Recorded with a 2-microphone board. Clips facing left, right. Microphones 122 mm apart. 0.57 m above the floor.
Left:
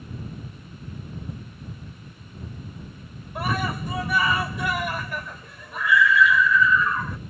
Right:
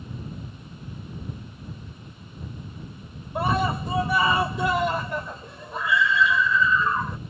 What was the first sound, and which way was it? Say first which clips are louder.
A scream: right 3 dB; 25° right (ahead or behind).